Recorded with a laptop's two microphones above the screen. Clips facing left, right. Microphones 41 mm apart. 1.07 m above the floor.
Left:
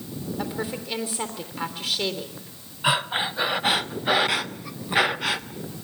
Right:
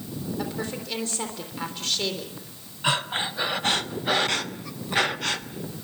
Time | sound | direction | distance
0.4 | a woman speaking | 10° left (ahead or behind) | 3.5 m
2.8 | breathing | 15° left (ahead or behind) | 0.7 m